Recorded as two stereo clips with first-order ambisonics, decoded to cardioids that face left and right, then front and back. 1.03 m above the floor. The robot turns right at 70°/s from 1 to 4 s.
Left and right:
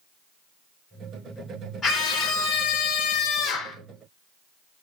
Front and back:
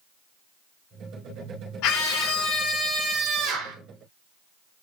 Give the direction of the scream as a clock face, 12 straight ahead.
11 o'clock.